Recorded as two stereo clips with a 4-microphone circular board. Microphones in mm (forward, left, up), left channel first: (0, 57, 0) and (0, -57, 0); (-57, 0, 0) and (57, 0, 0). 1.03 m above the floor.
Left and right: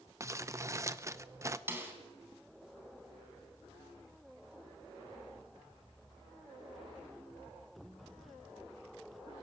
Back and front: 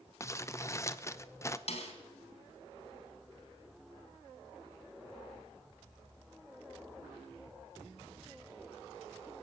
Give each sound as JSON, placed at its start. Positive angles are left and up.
{"t": 0.2, "sound": "crumpling", "azimuth_deg": -135, "distance_m": 0.8}
{"t": 1.7, "sound": "a snare drum", "azimuth_deg": -160, "distance_m": 3.5}